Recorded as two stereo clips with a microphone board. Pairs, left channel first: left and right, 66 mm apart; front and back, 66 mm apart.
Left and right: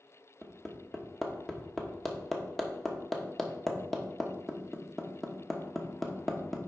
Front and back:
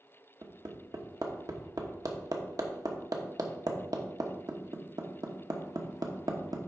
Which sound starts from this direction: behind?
Hammering, at 0.4 s.